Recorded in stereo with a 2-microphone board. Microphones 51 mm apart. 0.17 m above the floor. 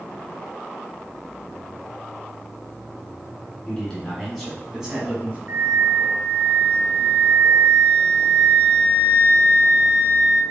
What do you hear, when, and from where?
3.7 s a man speaking: 20° left (ahead or behind), 1.2 m; by 5.4 s 25° right (ahead or behind), 1.1 m
5.5 s a flute: 45° right (ahead or behind), 0.8 m